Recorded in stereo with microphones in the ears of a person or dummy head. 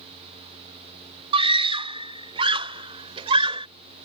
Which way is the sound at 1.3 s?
40° right (ahead or behind).